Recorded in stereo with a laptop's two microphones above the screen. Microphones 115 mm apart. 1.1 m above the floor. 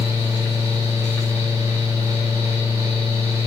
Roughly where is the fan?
Right.